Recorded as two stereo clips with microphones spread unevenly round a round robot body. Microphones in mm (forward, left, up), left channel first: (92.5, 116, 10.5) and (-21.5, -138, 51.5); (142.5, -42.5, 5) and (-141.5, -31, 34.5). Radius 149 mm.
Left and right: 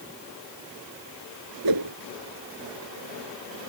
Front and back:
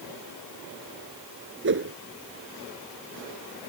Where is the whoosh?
135° right.